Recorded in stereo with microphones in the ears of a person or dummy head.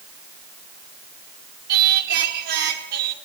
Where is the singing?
60° right (ahead or behind), 1.8 m.